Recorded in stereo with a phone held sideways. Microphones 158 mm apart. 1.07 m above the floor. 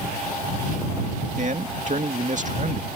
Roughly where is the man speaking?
Right.